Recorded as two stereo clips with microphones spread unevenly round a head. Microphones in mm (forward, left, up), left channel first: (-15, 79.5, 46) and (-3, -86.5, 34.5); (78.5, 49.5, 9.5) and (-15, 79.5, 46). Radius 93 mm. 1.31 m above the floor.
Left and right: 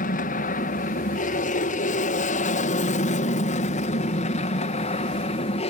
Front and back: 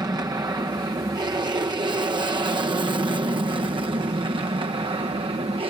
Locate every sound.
0.0 s an aircraft: 110° left; by 5.7 s 135° left